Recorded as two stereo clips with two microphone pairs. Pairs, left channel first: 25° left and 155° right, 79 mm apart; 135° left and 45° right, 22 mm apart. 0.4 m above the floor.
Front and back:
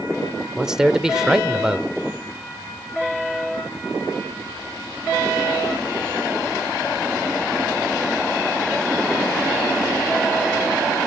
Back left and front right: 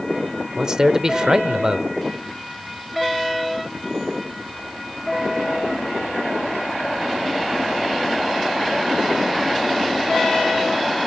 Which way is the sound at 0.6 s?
80° right.